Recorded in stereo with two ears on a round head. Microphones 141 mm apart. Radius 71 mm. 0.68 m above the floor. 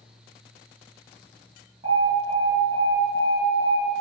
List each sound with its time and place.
1.8 s an alarm: 30° right (ahead or behind), 5 m